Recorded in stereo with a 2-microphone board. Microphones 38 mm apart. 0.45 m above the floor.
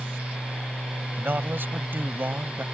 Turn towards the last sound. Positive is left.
turn(degrees=-65)  # may be behind; listen again after turning